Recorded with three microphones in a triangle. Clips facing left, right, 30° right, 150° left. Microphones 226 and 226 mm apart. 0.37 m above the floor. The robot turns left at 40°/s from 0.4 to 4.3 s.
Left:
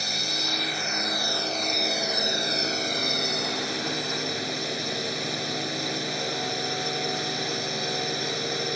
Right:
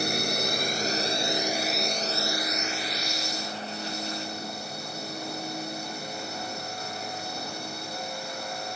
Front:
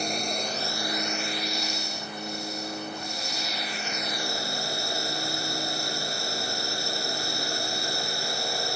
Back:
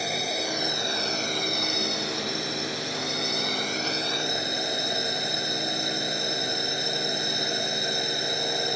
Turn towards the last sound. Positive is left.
turn(degrees=80)